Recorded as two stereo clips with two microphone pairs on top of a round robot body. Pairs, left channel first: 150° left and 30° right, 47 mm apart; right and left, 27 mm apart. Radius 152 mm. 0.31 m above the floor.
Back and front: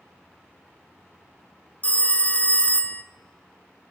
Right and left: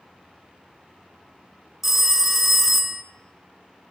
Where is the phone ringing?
170° left, 0.5 m.